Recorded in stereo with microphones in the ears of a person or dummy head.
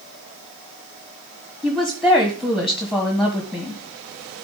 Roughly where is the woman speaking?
Centre.